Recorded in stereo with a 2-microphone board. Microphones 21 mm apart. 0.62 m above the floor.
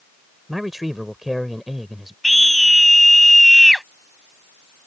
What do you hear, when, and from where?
0.5 s a man speaking: 10° right (ahead or behind)
2.2 s a scream: centre (ahead or behind)